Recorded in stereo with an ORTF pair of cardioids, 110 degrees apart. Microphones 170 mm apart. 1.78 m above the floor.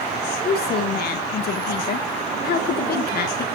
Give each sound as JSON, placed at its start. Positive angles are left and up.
{"t": 0.5, "sound": "a woman speaking", "azimuth_deg": 60, "distance_m": 2.5}